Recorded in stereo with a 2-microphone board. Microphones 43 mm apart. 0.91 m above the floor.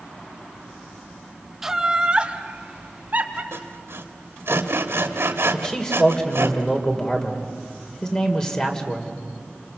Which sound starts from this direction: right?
Sawing, at 3.5 s.